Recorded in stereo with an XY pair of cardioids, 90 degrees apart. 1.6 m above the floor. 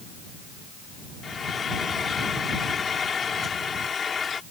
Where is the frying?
45° left.